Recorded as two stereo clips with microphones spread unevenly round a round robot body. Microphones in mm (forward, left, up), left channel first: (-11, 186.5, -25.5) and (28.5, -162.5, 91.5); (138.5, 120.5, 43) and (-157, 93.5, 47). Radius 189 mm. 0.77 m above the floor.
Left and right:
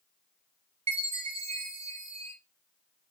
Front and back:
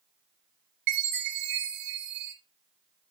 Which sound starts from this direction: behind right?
A chime, at 0.9 s.